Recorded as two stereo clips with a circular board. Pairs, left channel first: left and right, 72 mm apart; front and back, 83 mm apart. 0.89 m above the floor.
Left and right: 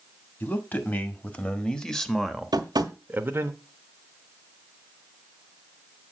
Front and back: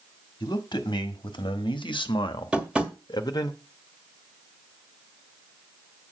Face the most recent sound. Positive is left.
turn(degrees=-100)